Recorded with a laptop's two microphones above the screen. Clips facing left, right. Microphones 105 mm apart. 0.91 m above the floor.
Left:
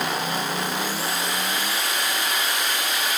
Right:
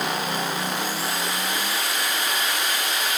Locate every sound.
Only background noise.